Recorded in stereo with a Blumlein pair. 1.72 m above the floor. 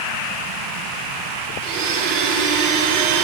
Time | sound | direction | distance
1.6 | a blender | 55° right | 6 m